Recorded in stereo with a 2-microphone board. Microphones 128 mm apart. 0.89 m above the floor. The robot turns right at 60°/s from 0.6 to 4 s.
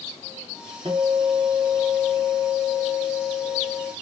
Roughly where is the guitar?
Ahead right.